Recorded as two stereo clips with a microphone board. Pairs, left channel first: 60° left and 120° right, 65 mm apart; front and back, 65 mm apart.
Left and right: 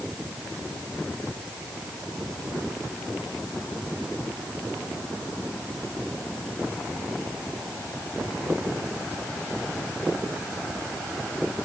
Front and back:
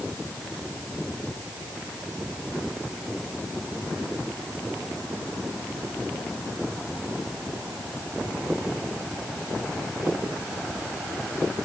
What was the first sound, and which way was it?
Only background noise.